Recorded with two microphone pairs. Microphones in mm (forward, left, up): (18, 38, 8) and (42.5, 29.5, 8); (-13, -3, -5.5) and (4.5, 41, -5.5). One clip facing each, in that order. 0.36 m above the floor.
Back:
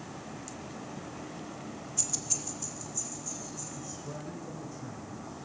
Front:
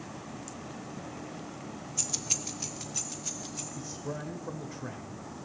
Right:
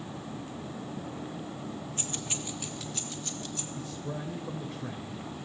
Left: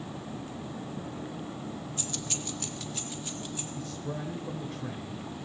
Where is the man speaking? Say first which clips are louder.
Front 3 dB, left 1 dB; 25° right, 1.0 m.